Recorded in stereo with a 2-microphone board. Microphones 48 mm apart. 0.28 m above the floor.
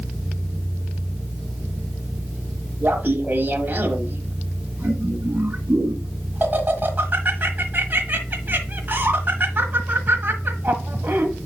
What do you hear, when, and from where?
2.8 s laughter: 40° right (ahead or behind), 1.2 m